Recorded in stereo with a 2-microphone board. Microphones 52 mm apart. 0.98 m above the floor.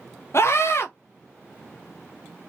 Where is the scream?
55° left (ahead or behind), 0.6 m.